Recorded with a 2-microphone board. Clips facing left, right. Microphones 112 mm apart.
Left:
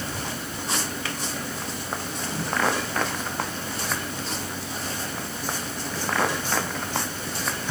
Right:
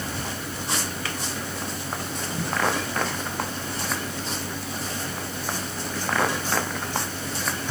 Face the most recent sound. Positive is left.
No sound to turn to.